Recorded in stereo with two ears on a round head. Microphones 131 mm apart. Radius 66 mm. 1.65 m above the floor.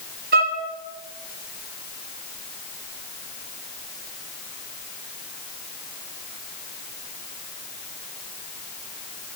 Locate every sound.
0.3 s a violin: 70° right (ahead or behind), 3 m